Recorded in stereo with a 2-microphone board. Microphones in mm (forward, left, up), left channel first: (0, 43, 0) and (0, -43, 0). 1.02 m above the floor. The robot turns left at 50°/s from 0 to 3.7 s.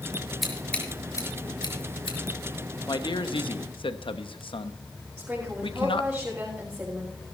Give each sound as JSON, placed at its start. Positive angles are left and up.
{"t": 0.4, "sound": "scissors", "side_deg": 0, "distance_m": 4.0}
{"t": 2.9, "sound": "a man speaking", "side_deg": 55, "distance_m": 0.9}
{"t": 5.2, "sound": "a woman speaking", "side_deg": -20, "distance_m": 5.5}